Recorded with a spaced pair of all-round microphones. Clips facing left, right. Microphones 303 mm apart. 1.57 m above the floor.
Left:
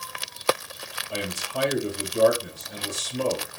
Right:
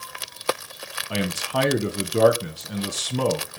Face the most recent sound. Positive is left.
turn(degrees=-75)  # may be behind; listen again after turning